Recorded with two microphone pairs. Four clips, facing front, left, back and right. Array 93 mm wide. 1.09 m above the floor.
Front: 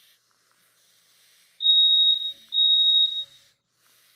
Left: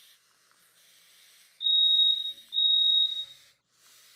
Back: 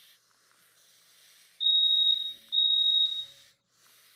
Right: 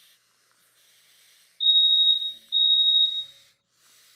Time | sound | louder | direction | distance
1.6 | a fire alarm | right 4 dB, front 6 dB | 25° right | 1.2 m